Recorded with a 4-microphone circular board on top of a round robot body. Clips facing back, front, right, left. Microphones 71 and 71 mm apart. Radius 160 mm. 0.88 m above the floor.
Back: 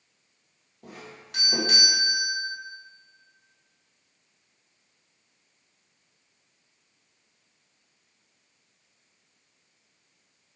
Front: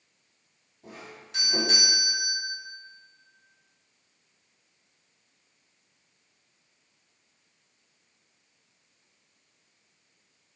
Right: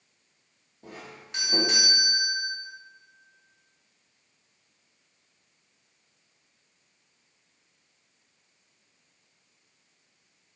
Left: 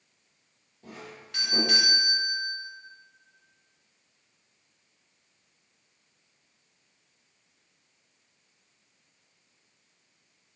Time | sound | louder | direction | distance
0.8 | a doorbell | back 1 dB, even | 160° right | 1.6 m